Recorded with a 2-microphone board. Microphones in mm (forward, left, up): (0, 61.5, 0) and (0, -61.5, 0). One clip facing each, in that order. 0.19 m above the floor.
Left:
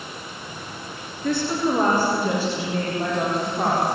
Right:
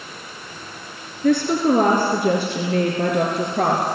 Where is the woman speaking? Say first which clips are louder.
Right 5 dB; 60° right (ahead or behind), 3 m; by 3.8 s 70° right (ahead or behind), 4 m.